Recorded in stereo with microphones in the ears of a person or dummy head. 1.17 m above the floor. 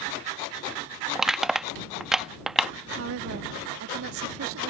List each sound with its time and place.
1.1 s crushing: 5° right (ahead or behind)
3.0 s a woman speaking: 80° right